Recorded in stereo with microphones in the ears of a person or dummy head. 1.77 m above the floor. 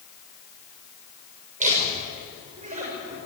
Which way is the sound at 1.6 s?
40° right (ahead or behind).